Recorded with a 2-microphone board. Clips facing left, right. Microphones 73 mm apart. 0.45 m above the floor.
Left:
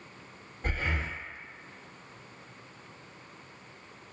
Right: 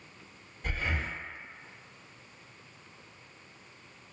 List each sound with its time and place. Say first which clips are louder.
0.6 s breathing: left 1 dB; 35° left (ahead or behind), 0.6 m